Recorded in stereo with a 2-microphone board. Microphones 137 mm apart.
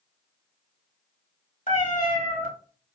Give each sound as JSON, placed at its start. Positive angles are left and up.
{"t": 1.7, "sound": "a cat meowing", "side_deg": 65, "distance_m": 1.4}